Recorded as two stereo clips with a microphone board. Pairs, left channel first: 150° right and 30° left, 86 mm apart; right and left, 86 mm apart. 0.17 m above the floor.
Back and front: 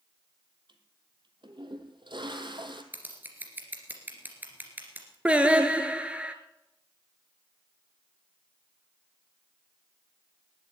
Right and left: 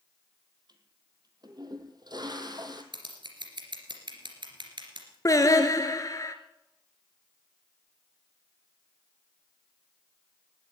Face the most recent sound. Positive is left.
turn(degrees=-45)